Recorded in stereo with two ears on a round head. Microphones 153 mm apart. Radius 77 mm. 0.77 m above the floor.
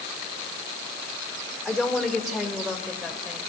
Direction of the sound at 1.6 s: Centre (ahead or behind).